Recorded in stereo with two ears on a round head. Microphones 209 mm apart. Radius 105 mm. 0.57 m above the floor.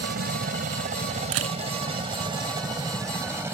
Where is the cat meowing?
I don't hear a cat meowing.